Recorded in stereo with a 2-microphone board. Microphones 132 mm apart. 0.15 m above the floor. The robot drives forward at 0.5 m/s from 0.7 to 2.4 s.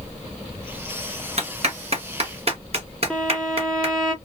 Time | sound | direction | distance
1.4 | a clap | 55° right (ahead or behind) | 2.5 m
3.1 | a violin | 5° left (ahead or behind) | 1.5 m